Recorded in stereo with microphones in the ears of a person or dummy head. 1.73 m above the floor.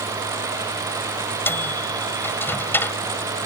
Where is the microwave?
15° left (ahead or behind).